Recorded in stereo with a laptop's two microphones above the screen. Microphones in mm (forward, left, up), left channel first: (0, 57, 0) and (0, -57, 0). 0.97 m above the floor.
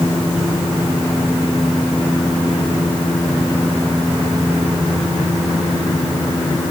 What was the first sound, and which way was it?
Only background noise.